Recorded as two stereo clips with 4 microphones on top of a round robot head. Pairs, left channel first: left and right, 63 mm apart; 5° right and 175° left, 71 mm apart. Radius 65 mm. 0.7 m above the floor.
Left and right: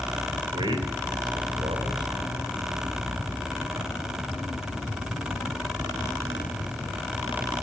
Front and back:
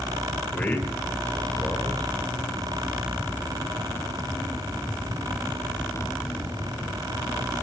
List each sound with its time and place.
0.5 s a man speaking: 75° right, 3.5 m